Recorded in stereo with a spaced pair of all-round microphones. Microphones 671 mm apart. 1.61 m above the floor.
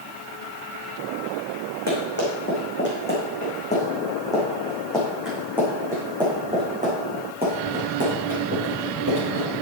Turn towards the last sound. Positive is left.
turn(degrees=-20)  # may be behind; listen again after turning